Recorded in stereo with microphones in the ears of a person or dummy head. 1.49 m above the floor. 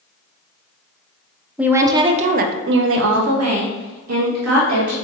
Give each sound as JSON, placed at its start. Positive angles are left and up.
{"t": 1.6, "sound": "a woman speaking", "side_deg": -10, "distance_m": 0.6}